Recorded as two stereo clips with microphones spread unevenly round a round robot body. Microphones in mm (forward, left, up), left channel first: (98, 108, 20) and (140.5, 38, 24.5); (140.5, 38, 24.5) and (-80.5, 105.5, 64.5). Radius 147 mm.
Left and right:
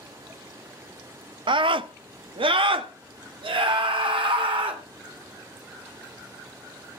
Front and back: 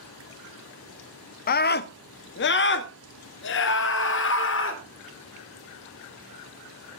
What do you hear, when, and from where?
1.5 s a scream: 60° right, 0.5 m